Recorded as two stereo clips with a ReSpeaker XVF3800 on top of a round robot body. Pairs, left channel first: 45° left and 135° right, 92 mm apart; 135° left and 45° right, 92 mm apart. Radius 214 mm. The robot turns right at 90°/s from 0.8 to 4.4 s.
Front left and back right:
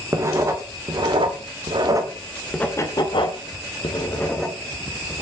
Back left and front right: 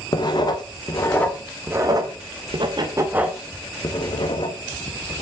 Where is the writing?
170° left, 2.5 m; by 5.2 s 135° left, 2.5 m.